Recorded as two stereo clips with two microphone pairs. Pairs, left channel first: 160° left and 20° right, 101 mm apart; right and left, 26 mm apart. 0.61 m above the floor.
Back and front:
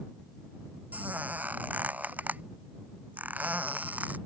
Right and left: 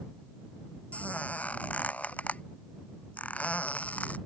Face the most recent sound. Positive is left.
turn(degrees=-95)